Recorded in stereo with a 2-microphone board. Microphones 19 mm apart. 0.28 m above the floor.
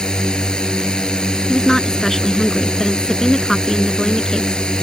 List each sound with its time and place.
0.0 s a drone: 50° left (ahead or behind)
1.5 s a woman speaking: 30° left (ahead or behind)